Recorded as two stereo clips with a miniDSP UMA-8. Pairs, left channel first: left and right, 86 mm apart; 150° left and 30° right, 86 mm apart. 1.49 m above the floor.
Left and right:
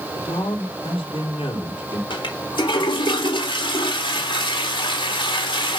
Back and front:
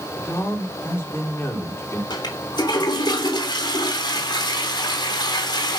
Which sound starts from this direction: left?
A man speaking, at 0.1 s.